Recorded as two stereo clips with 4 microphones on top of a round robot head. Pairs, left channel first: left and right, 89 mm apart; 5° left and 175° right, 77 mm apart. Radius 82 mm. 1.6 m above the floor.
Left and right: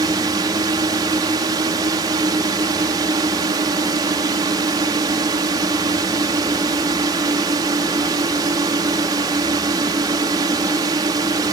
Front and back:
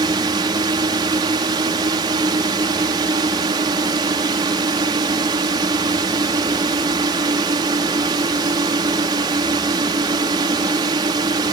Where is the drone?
140° right.